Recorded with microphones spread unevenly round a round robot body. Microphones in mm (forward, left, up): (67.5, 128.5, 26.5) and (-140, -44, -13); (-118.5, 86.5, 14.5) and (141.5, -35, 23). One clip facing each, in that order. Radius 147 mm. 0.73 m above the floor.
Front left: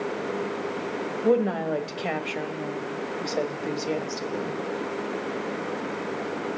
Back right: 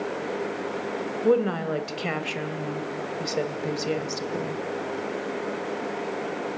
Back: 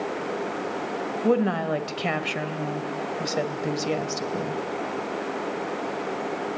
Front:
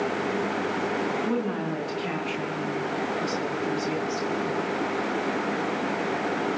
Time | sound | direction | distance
1.2 | a woman speaking | 150° left | 3 m